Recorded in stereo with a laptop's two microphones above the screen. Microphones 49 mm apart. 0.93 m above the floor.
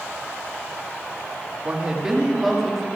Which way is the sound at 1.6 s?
25° right (ahead or behind).